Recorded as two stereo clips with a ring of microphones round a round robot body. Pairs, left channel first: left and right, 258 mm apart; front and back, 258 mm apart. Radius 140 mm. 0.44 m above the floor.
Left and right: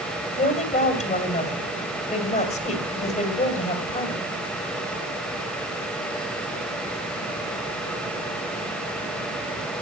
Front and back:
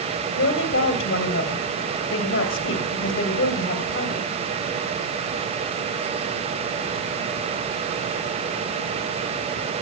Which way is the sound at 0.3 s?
35° left.